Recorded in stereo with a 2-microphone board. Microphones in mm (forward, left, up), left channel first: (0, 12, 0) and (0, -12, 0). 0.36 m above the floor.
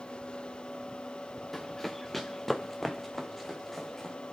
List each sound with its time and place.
1.5 s running footsteps: 10° left (ahead or behind), 1.6 m; by 4.2 s 5° left (ahead or behind), 4 m